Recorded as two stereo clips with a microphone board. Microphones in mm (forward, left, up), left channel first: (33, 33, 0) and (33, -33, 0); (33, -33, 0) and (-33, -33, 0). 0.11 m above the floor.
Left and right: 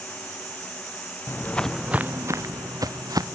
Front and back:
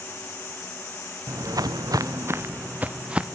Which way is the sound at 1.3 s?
140° left.